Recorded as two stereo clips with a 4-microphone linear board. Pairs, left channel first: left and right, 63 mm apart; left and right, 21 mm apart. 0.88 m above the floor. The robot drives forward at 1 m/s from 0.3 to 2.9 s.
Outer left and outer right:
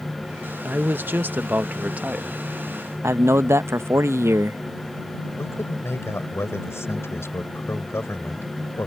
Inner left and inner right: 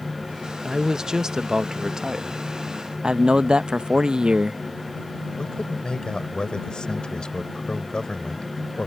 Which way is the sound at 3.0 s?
45° right (ahead or behind).